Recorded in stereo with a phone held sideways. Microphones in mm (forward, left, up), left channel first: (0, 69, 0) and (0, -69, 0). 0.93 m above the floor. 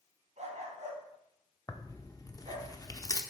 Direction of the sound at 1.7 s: 25° left (ahead or behind).